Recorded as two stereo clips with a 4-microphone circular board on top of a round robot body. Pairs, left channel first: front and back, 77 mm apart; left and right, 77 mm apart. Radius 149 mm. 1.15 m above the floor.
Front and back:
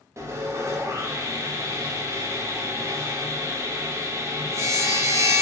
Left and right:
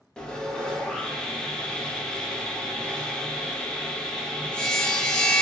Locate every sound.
0.2 s sawing: 165° left, 0.7 m